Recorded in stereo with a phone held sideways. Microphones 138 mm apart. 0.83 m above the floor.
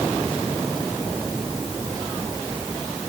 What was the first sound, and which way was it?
Only background noise.